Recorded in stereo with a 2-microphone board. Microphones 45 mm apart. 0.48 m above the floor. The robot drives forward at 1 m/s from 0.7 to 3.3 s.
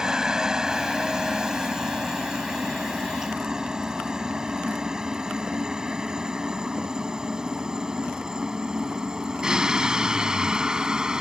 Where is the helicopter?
10° right (ahead or behind); by 11.2 s 15° right (ahead or behind).